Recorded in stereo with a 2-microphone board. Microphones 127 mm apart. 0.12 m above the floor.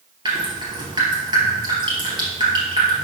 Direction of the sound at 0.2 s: 40° right (ahead or behind).